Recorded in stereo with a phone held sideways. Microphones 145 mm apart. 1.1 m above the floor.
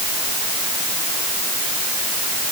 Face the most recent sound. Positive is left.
No sound to turn to.